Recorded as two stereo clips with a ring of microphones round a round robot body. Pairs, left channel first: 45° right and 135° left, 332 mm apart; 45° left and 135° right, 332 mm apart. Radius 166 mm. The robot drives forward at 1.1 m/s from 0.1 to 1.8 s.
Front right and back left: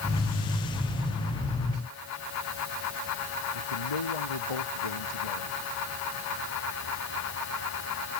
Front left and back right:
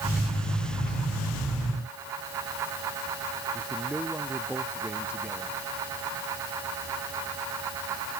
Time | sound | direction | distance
3.5 | a man speaking | 50° right | ?